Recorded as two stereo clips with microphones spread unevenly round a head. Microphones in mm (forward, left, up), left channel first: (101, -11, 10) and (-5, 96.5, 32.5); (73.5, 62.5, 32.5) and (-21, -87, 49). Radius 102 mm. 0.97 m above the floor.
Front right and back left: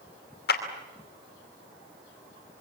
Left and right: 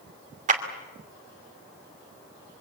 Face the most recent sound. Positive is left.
turn(degrees=-75)